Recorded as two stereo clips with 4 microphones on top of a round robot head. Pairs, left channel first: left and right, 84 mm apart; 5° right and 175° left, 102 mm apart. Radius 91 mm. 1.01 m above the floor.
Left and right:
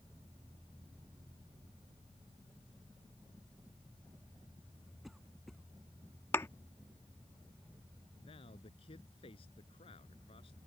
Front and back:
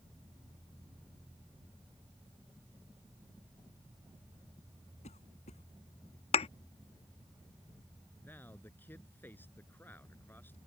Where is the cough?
Straight ahead.